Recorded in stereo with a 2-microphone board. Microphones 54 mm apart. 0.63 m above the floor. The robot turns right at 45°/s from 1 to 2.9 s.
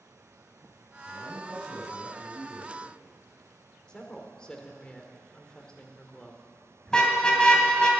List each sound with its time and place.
1.1 s a man speaking: 150° left, 6 m; by 3.0 s 125° right, 6 m
3.9 s a woman speaking: 15° left (ahead or behind), 2 m
6.9 s a car horn: 10° left (ahead or behind), 2.5 m